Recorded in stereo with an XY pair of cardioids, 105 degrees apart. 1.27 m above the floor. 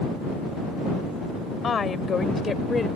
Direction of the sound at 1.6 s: 40° left.